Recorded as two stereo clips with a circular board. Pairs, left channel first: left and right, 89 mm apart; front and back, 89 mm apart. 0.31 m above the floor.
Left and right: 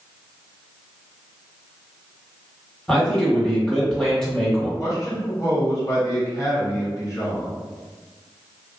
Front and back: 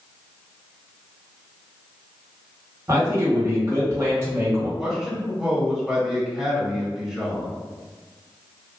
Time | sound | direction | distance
2.9 | a man speaking | 165° left | 1.7 m
4.8 | a man speaking | 100° left | 1.2 m